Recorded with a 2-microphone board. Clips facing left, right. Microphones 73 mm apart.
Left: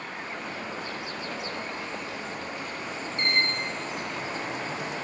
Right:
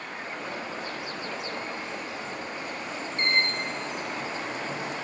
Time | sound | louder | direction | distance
0.1 | an alarm | right 3 dB | 25° right (ahead or behind) | 6.5 m